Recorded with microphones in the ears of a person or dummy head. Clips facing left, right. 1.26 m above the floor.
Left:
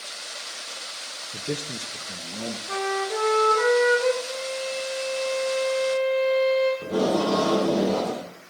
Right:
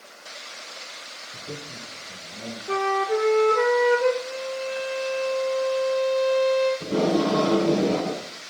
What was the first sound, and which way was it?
A man speaking, 75° left (ahead or behind).